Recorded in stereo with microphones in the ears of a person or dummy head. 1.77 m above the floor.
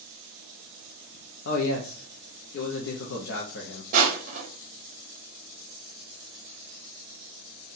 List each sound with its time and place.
1.4 s a man speaking: 75° left (ahead or behind), 0.9 m
3.9 s crushing: 45° right (ahead or behind), 1.0 m